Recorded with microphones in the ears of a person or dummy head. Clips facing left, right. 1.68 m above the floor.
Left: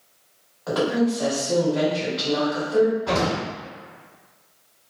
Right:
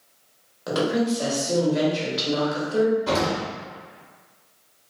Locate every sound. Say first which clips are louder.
0.7 s a woman speaking: left 1 dB; 40° right (ahead or behind), 0.9 m
3.1 s an explosion: even; 45° right (ahead or behind), 1.5 m